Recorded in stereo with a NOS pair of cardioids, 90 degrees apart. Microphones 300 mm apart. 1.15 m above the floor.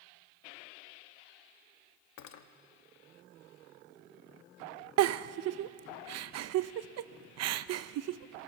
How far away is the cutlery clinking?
About 1.2 m.